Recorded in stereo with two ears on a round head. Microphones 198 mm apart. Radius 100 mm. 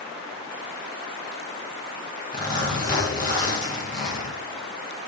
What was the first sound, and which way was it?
A zipper, 35° left (ahead or behind).